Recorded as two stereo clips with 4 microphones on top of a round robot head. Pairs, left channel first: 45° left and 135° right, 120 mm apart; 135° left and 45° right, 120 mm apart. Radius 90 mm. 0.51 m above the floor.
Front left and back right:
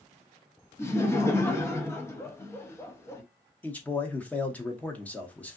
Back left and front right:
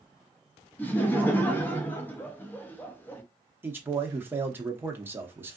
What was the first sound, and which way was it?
Laughter, 80° left.